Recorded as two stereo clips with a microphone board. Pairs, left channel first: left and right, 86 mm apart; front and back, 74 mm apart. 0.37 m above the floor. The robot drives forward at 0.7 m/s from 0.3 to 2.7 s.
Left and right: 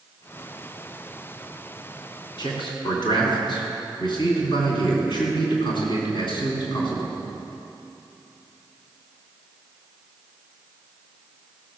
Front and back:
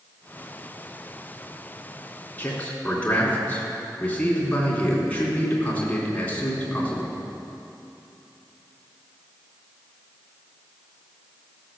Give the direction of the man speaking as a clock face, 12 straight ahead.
10 o'clock.